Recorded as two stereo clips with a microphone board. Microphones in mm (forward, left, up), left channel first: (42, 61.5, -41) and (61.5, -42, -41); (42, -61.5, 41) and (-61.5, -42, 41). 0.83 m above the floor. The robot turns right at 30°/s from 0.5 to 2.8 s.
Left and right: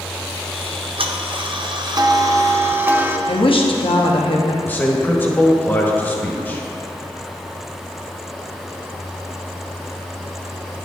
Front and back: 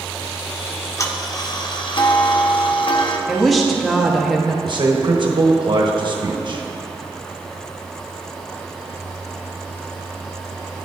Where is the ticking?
75° right, 0.6 m; by 3.2 s 10° right, 0.6 m.